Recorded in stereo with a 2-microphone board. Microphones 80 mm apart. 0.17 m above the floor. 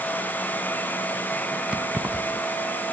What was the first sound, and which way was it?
Keys jangling, 15° right (ahead or behind).